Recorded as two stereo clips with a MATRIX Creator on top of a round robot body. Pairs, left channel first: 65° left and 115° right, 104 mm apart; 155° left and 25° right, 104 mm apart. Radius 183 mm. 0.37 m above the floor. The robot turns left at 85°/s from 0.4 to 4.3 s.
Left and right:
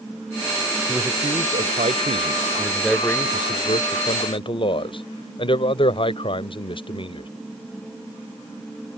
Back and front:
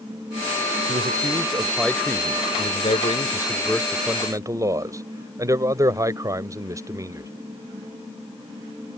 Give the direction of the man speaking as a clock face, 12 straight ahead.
1 o'clock.